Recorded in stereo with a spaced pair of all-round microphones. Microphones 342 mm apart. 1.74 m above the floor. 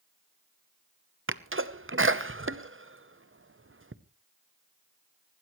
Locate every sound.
1.3 s a sneeze: 35° right (ahead or behind), 0.8 m